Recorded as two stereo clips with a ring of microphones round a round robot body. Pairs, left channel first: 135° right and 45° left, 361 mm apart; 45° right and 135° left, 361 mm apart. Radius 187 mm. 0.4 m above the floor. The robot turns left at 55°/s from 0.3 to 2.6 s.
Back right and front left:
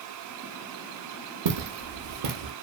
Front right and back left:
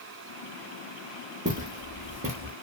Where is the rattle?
I don't hear a rattle.